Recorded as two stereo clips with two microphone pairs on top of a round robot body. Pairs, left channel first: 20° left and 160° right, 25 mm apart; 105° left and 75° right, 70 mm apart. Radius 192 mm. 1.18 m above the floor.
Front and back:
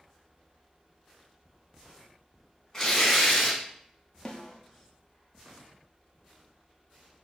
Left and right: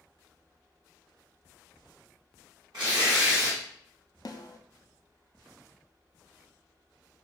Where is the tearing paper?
50° right, 0.5 m.